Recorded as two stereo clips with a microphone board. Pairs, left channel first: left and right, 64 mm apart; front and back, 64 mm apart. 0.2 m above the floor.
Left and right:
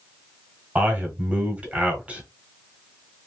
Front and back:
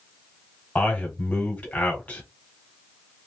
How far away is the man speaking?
About 1.4 m.